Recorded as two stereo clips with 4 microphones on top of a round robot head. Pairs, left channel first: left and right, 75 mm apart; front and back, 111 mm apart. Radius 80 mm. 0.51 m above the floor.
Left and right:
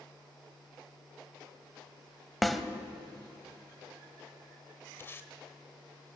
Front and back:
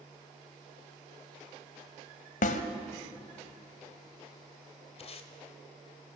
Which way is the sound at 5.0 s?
30° left.